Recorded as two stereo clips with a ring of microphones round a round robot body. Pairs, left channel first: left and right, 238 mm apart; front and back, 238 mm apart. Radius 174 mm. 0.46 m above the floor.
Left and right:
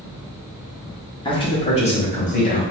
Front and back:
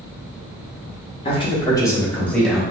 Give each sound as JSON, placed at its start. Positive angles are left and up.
{"t": 1.2, "sound": "a man speaking", "azimuth_deg": 40, "distance_m": 1.5}